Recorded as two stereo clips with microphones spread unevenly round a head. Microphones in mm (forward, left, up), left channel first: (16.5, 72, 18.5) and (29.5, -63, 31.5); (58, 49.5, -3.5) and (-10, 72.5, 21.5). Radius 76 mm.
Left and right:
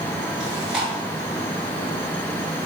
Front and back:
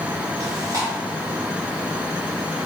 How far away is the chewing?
About 1.2 m.